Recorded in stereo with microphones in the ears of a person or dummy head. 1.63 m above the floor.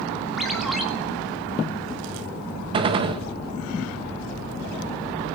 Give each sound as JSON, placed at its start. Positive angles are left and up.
{"t": 0.4, "sound": "a ringtone", "side_deg": 0, "distance_m": 2.5}
{"t": 2.7, "sound": "a gunshot", "side_deg": -30, "distance_m": 1.5}